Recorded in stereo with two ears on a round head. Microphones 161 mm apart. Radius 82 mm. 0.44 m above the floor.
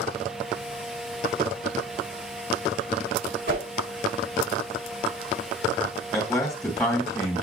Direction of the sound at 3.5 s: 70° right (ahead or behind).